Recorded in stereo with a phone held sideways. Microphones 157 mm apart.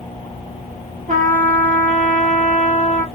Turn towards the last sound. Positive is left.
turn(degrees=-55)  # may be behind; listen again after turning